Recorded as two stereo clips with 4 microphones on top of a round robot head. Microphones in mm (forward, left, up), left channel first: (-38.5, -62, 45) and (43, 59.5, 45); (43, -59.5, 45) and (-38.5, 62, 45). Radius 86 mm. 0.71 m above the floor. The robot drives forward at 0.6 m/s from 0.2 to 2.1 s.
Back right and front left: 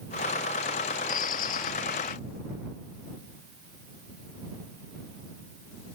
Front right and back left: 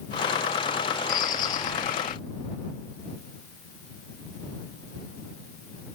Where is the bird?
90° right; by 2.2 s 95° right.